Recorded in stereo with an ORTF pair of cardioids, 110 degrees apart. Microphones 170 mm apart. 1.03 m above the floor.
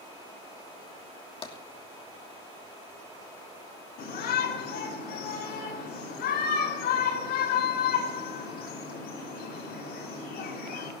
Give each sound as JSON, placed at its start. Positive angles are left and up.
{"t": 1.4, "sound": "tapping", "azimuth_deg": 35, "distance_m": 2.5}
{"t": 4.0, "sound": "a shout", "azimuth_deg": 65, "distance_m": 6.5}